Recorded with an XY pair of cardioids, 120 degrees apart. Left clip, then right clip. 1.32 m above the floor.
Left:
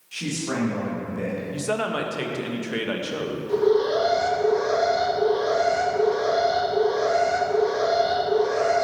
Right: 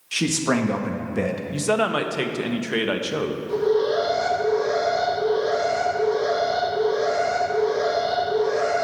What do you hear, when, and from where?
0.1 s a man speaking: 65° right, 1.6 m
1.5 s a man speaking: 25° right, 1.0 m
3.5 s an alarm: 10° left, 3 m